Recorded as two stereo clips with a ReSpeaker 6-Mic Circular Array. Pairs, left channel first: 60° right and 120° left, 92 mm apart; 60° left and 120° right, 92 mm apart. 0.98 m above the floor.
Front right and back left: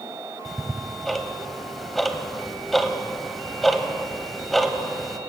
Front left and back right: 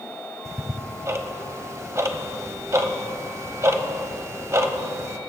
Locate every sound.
0.5 s ticking: 145° right, 0.9 m